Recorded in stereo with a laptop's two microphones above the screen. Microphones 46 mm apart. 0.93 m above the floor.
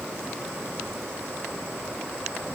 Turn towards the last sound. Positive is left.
No sound to turn to.